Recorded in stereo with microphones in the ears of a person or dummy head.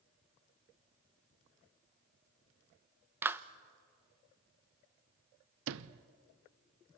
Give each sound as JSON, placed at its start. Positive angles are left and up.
{"t": 3.2, "sound": "a clap", "side_deg": -10, "distance_m": 0.6}
{"t": 5.7, "sound": "a sliding door", "side_deg": -80, "distance_m": 0.6}